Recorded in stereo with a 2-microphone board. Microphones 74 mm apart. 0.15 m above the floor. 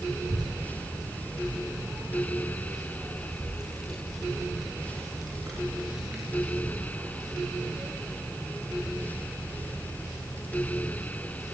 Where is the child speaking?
65° right (ahead or behind), 5.5 m; by 9.0 s 35° right (ahead or behind), 11.5 m.